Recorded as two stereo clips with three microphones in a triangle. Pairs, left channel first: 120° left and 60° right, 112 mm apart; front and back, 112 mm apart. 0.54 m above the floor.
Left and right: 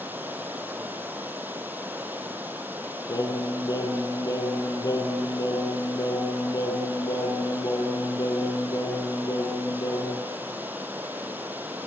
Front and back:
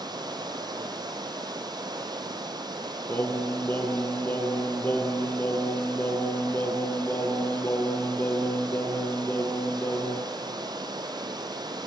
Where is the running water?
135° right, 2 m.